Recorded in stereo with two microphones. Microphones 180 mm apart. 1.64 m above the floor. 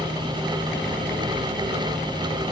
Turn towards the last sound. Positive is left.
No sound to turn to.